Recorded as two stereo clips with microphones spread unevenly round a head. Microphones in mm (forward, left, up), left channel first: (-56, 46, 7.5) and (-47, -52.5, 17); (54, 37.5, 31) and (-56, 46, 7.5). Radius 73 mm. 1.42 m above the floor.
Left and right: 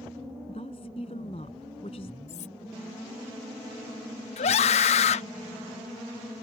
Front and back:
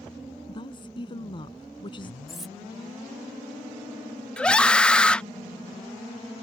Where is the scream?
80° left.